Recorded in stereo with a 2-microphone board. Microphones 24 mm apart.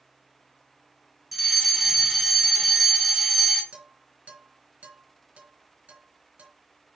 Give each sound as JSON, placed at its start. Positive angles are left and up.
{"t": 1.3, "sound": "a fire alarm", "side_deg": 0, "distance_m": 2.5}
{"t": 3.7, "sound": "dishes clattering", "side_deg": -70, "distance_m": 3.5}